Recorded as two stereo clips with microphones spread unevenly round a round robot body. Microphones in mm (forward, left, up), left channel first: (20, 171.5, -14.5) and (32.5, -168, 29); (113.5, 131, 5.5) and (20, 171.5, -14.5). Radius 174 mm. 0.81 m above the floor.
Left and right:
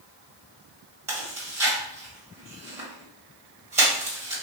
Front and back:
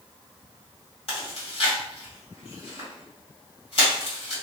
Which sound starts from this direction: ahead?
Chewing, at 1.1 s.